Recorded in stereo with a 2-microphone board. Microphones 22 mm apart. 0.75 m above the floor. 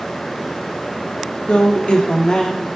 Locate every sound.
1.5 s a woman speaking: 70° left (ahead or behind), 1.4 m; by 2.7 s 35° left (ahead or behind), 1.4 m